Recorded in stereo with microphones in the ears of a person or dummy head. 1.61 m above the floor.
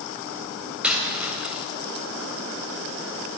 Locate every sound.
0.8 s a dropped coin: 5° right (ahead or behind), 3 m